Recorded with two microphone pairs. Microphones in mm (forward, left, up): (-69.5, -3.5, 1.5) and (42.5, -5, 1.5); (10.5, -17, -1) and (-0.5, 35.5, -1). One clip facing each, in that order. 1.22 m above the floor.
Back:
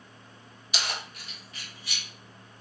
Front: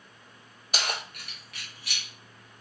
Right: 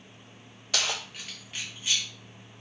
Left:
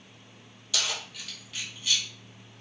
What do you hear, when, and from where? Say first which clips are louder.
0.7 s keys jangling: front 2 dB, right 2 dB; 45° right, 0.6 m; by 2.0 s 15° right, 1.3 m